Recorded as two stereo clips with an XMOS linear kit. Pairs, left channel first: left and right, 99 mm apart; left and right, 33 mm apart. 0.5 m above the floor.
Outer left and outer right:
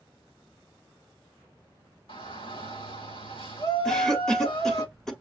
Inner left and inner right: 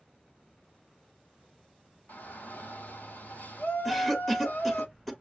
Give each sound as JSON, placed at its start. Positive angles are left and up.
{"t": 2.1, "sound": "a shout", "side_deg": 70, "distance_m": 4.0}
{"t": 3.9, "sound": "a cough", "side_deg": 5, "distance_m": 1.3}